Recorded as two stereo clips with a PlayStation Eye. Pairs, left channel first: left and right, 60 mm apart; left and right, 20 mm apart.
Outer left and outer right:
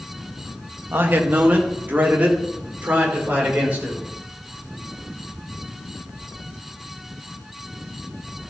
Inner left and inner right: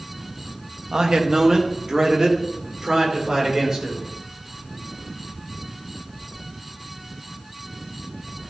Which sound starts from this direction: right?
A man speaking, at 0.9 s.